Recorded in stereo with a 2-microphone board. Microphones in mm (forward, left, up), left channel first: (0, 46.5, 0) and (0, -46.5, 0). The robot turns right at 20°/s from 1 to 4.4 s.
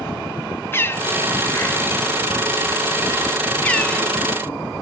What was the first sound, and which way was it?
A bird, 25° left (ahead or behind).